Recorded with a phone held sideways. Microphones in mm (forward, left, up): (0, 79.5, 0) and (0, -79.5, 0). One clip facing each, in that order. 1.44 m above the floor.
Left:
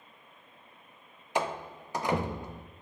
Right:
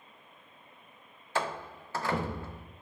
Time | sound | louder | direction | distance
1.4 | a door slam | left 2 dB | 15° left (ahead or behind) | 0.5 m